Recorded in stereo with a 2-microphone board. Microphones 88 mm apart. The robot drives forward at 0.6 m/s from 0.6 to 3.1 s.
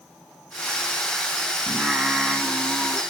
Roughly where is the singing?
Centre.